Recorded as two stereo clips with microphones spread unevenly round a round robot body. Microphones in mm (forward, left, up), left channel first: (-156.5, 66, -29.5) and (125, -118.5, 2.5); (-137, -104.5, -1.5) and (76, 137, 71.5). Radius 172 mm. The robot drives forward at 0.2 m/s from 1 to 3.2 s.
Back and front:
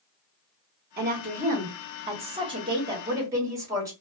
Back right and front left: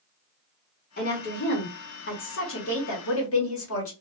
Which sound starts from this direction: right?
A woman speaking, at 1.0 s.